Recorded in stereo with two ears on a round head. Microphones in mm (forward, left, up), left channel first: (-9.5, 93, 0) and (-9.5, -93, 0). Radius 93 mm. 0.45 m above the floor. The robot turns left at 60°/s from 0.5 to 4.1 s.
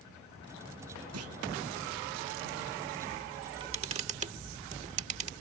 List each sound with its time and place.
1.1 s a clunk: 85° right
3.4 s a camera shutter: 20° right (ahead or behind); by 5.3 s 35° right (ahead or behind)